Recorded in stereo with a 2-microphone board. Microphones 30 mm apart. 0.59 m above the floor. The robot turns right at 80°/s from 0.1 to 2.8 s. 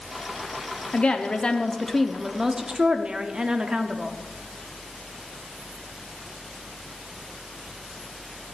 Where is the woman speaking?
95° left, 0.9 m; by 4.2 s 115° right, 0.9 m.